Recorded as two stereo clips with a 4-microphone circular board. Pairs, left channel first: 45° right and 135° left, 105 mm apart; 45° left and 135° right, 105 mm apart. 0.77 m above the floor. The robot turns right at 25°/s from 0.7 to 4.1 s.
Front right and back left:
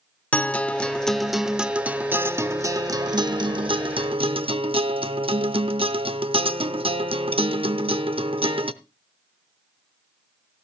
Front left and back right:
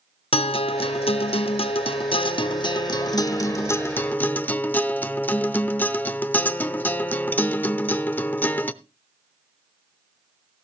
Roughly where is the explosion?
I don't hear an explosion.